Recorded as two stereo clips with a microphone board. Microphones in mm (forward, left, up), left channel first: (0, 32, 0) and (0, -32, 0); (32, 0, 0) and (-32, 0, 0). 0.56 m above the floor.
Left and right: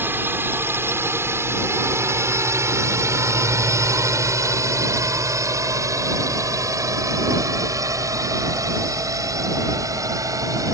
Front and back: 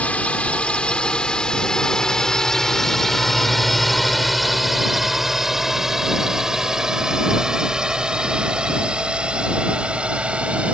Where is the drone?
60° right; by 10.8 s 110° right.